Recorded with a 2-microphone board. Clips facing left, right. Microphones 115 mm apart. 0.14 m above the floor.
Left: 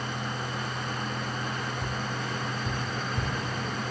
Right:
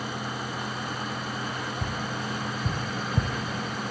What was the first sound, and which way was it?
Tapping, 50° right (ahead or behind).